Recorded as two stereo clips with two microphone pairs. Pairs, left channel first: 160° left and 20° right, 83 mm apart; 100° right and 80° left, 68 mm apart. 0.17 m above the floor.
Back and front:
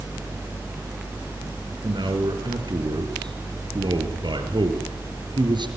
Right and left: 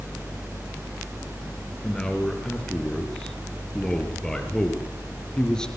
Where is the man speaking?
20° right, 3.5 m.